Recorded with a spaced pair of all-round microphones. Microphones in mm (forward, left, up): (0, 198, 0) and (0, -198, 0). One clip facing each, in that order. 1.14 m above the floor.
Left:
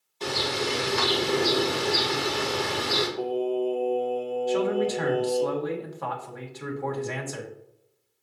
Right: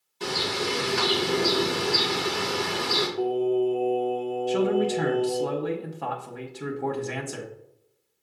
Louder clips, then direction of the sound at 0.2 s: Even; 25° right (ahead or behind).